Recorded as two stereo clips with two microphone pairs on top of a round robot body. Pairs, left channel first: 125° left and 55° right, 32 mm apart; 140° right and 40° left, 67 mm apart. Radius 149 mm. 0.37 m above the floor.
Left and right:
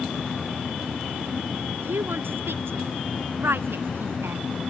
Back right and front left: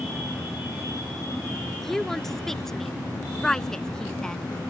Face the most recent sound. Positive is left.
turn(degrees=-60)